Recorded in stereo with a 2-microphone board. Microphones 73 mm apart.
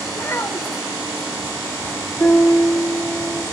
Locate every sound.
0.1 s a child speaking: 40° left (ahead or behind), 0.7 m
2.2 s a piano: 25° left (ahead or behind), 2.5 m